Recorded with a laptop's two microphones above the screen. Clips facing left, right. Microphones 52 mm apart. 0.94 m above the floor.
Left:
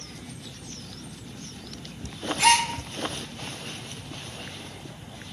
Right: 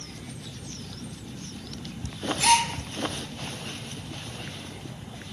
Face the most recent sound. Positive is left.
turn(degrees=80)